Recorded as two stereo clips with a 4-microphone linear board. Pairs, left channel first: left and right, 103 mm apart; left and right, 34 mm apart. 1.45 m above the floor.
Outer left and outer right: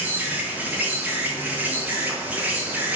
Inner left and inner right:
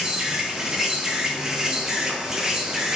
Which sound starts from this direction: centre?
An insect, at 0.0 s.